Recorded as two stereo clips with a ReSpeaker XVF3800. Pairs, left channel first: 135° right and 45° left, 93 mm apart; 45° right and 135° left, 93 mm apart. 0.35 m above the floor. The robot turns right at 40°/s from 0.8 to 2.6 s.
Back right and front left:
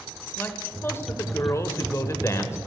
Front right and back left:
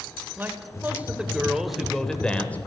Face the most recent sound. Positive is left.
turn(degrees=-105)